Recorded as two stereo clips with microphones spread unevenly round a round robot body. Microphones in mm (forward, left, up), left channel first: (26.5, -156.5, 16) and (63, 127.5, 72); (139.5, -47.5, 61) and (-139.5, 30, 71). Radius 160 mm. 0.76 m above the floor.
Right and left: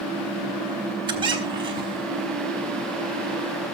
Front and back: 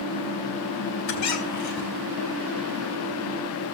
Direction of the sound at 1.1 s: 10° left.